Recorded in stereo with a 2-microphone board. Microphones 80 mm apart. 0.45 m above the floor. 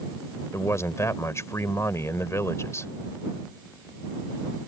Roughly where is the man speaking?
Left.